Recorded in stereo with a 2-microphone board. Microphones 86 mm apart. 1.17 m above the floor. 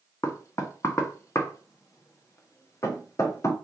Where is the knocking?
35° left (ahead or behind), 0.6 m.